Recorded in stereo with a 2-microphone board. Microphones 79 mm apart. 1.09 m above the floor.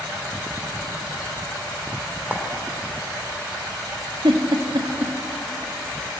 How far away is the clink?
About 2.5 m.